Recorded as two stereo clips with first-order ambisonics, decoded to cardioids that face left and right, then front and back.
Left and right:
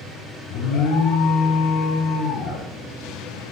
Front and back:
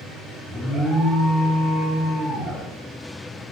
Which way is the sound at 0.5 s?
100° left.